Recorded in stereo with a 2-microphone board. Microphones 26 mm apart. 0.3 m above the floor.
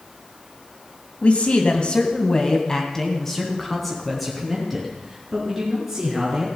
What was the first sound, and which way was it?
A man speaking, 55° left (ahead or behind).